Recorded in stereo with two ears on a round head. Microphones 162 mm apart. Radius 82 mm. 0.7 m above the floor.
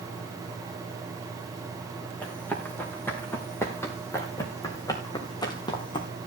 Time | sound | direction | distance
2.2 | running footsteps | 10° left (ahead or behind) | 5 m